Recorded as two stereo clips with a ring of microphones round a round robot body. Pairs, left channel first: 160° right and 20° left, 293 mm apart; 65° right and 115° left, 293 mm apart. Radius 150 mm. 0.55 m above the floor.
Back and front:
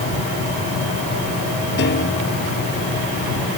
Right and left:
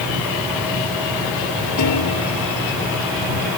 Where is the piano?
100° right.